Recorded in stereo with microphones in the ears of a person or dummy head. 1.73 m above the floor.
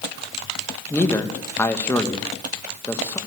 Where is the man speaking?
15° left (ahead or behind), 1.9 m.